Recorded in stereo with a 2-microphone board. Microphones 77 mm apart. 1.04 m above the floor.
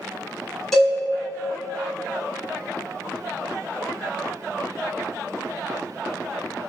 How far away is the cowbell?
About 1.7 m.